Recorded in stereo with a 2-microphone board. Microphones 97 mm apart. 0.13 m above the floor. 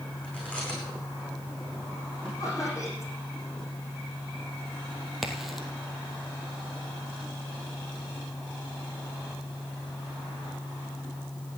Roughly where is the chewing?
Centre.